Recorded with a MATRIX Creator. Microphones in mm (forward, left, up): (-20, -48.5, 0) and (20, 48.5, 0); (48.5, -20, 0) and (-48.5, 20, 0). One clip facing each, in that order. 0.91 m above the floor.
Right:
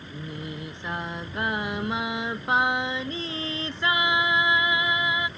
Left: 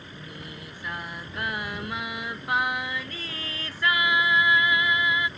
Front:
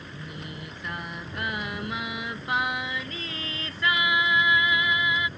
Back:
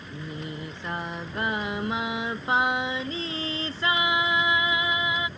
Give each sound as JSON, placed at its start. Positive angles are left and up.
{"t": 0.1, "sound": "singing", "azimuth_deg": -160}